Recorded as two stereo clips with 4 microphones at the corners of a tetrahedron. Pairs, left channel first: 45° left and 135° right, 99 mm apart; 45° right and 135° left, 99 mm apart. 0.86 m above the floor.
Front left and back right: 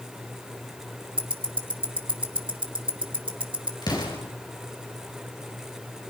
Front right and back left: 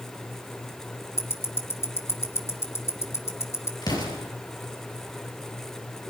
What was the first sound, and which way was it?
Ticking, 110° right.